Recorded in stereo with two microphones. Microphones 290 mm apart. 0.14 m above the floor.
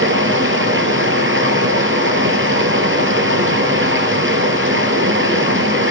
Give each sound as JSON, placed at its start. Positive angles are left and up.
{"t": 0.0, "sound": "running water", "side_deg": -45, "distance_m": 1.9}